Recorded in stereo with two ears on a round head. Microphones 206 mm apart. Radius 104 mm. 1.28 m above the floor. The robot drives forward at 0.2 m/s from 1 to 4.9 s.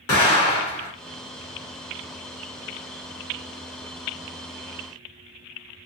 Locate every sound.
0.1 s an explosion: 75° left (ahead or behind), 2.5 m